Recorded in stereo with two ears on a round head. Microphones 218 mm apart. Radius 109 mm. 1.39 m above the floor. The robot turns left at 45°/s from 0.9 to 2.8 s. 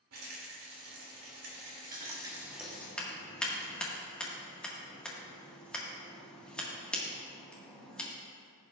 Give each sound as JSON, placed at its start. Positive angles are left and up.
{"t": 0.1, "sound": "a rattle", "azimuth_deg": -100, "distance_m": 2.5}
{"t": 1.9, "sound": "scissors", "side_deg": -35, "distance_m": 1.7}